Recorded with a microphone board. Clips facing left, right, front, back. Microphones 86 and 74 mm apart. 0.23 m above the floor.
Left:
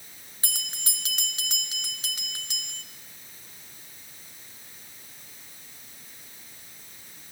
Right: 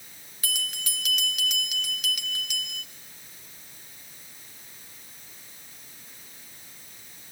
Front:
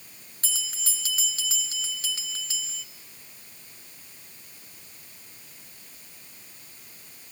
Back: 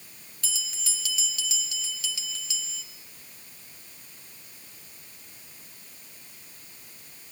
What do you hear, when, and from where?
0.4 s a bell: 35° left, 2 m